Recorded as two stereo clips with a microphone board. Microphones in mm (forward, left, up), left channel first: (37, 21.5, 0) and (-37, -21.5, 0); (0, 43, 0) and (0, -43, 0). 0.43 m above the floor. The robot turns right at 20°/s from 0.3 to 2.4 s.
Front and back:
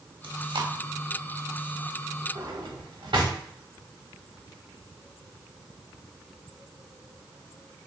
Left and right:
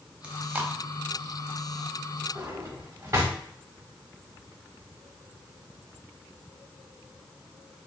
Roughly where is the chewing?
Behind.